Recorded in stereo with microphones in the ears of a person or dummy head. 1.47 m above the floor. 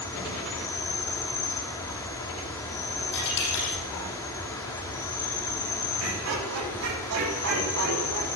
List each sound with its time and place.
0.0 s an insect: 15° left (ahead or behind), 1.2 m
3.1 s a dropped coin: 70° left (ahead or behind), 5.5 m
6.0 s laughter: 90° right, 3.5 m